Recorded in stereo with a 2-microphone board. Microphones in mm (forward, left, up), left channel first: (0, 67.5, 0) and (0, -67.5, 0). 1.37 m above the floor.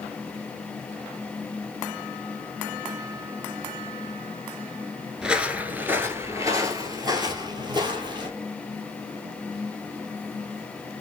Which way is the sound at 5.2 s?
5° right (ahead or behind).